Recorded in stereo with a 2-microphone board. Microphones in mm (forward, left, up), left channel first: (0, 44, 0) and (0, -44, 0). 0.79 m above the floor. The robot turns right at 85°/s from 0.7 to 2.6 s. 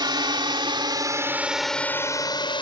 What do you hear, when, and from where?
0.0 s a drone: 60° right (ahead or behind); by 2.6 s 70° left (ahead or behind)